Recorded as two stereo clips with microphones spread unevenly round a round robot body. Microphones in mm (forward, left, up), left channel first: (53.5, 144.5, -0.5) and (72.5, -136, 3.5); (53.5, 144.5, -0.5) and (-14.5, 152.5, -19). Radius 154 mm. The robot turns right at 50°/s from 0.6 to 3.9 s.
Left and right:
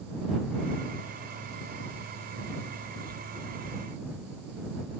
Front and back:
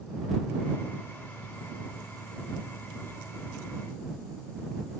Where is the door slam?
No door slam in this recording.